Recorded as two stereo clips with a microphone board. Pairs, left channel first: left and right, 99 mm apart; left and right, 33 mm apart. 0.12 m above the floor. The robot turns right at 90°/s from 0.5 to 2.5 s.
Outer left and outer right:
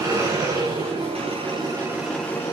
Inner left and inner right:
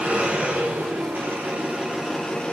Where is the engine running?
150° right, 6.5 m; by 2.5 s 30° left, 6.5 m.